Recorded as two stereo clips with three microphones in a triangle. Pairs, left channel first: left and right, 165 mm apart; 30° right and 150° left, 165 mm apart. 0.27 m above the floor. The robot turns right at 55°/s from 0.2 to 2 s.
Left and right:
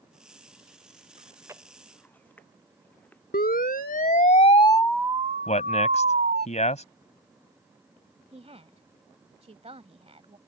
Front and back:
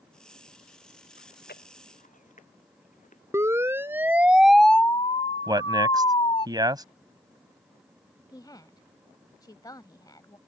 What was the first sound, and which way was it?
Chewing, 35° right.